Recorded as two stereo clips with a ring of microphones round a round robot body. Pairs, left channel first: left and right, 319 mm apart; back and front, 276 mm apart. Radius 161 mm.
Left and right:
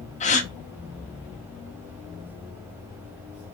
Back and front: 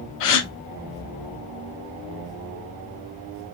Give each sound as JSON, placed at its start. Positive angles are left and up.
{"t": 0.2, "sound": "a gasp", "azimuth_deg": 160, "distance_m": 0.7}